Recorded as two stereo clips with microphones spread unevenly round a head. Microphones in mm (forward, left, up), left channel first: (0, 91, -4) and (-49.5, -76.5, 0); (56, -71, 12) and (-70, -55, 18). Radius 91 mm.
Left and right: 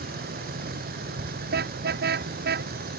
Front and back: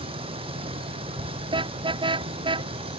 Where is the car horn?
135° right.